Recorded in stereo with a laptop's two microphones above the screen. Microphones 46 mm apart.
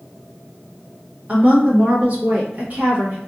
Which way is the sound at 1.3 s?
40° right (ahead or behind).